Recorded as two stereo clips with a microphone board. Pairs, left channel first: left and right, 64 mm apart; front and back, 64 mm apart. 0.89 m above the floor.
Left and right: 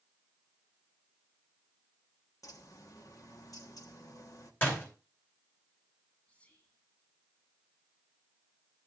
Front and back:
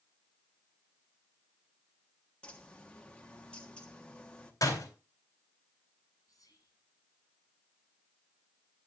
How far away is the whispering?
About 7.5 m.